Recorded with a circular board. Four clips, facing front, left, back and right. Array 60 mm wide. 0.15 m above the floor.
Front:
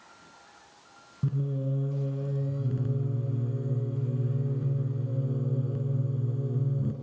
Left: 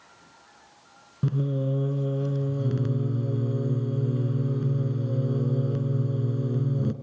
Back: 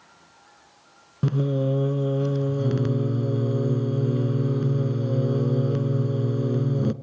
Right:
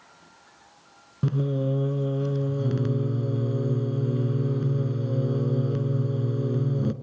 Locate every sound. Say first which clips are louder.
1.2 s singing: right 1 dB, back 8 dB; 170° right, 0.6 m